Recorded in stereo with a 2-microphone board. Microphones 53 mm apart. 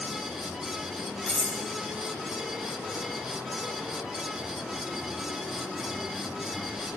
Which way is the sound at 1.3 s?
5° left (ahead or behind).